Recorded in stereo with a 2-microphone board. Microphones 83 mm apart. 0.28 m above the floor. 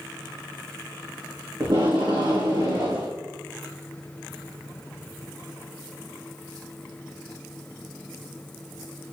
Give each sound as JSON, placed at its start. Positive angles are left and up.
{"t": 1.6, "sound": "tape being pulled", "side_deg": -60, "distance_m": 4.5}